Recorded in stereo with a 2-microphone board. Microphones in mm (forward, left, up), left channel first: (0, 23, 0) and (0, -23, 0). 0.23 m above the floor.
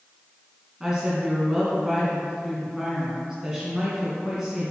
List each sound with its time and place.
0.8 s a woman speaking: 10° right (ahead or behind), 2 m